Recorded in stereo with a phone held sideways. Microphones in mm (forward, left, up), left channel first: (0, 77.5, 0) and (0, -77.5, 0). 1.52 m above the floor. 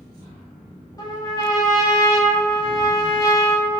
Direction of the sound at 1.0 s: 25° left (ahead or behind).